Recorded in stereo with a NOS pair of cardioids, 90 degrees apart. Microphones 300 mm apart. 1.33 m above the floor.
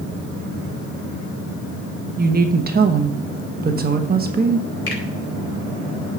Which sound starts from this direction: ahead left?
A finger snap, at 4.9 s.